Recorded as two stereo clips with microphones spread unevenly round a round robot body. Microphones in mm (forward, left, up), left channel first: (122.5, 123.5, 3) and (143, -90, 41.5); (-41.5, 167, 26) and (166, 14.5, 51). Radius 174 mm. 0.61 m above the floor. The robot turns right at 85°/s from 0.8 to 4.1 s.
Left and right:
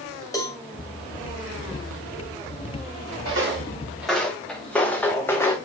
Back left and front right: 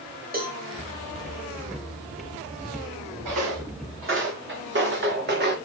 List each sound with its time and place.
0.3 s a cowbell: 20° left, 3 m
3.2 s footsteps: 70° right, 5.5 m; by 5.6 s 15° left, 2.5 m